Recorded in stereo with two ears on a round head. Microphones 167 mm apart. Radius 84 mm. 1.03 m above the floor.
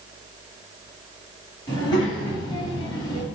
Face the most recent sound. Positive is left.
turn(degrees=25)  # may be behind; listen again after turning